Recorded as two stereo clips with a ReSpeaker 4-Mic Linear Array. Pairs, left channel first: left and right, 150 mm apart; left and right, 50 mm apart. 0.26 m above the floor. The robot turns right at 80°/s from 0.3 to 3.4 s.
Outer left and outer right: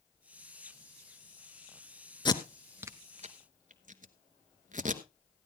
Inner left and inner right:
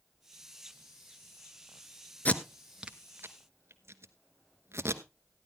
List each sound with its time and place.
2.2 s tape being pulled: 30° left (ahead or behind), 1.0 m; by 5.0 s 60° right (ahead or behind), 1.0 m